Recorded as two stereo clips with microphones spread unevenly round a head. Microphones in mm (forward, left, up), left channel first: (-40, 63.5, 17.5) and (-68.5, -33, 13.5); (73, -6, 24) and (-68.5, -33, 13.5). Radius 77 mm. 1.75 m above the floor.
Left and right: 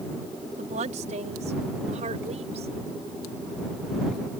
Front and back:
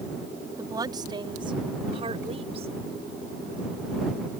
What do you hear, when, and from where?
0.6 s a woman speaking: 100° right; by 2.7 s 120° right